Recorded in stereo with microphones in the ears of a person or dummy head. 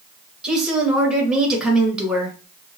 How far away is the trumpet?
No trumpet in this recording.